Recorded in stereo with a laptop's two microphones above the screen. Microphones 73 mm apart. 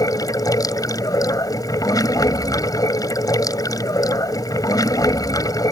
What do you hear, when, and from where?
0.0 s running water: 60° left (ahead or behind)